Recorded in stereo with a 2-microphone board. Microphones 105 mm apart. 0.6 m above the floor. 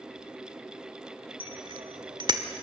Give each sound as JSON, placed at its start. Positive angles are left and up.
{"t": 1.4, "sound": "a bicycle bell", "side_deg": -60, "distance_m": 2.5}